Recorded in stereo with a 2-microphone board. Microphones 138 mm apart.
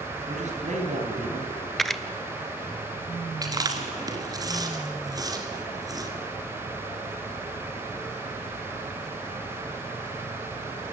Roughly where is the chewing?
Right.